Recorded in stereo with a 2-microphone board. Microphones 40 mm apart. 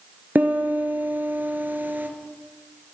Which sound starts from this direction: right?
A piano, at 0.3 s.